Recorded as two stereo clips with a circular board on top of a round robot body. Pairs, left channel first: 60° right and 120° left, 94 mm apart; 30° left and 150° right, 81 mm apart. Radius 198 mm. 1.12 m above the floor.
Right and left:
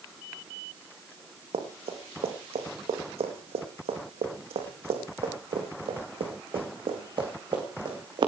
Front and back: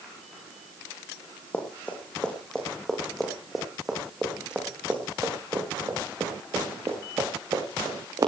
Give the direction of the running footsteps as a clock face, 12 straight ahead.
9 o'clock.